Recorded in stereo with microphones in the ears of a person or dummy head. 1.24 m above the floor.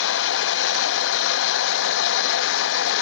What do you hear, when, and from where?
0.0 s a machine running: 70° left (ahead or behind), 0.9 m